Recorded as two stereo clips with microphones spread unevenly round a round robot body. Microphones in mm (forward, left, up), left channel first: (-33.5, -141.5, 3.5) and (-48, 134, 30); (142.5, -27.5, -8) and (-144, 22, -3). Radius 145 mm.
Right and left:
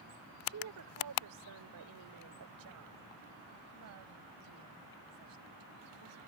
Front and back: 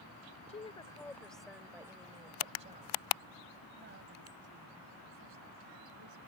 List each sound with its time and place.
0.5 s a woman speaking: 55° left; by 6.2 s 125° left